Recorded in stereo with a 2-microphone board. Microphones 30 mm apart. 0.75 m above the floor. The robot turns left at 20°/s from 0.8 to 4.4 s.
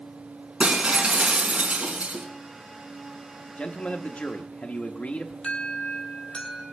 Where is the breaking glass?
35° right (ahead or behind), 2.5 m; by 2.3 s 65° right (ahead or behind), 2.5 m.